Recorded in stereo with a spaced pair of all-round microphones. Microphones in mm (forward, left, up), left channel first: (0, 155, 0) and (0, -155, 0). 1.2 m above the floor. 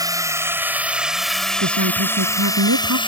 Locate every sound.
0.0 s a drone: 10° right (ahead or behind); by 3.1 s 15° left (ahead or behind)
1.6 s a woman speaking: 80° right